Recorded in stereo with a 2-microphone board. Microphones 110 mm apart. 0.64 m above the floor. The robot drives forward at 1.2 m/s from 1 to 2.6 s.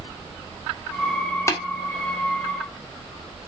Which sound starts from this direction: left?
Tapping, at 1.5 s.